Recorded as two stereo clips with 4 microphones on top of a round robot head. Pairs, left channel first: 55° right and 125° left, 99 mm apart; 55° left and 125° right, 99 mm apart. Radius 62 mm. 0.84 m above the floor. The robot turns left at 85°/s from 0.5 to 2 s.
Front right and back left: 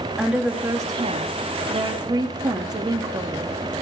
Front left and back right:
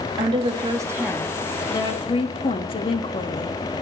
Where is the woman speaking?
155° right, 1.3 m; by 3.6 s 80° left, 1.3 m.